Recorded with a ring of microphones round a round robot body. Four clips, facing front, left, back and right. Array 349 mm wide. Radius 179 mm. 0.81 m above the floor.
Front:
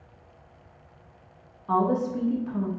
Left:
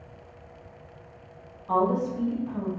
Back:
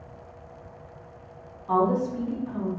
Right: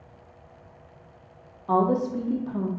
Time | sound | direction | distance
1.7 | a woman speaking | 75° right | 0.7 m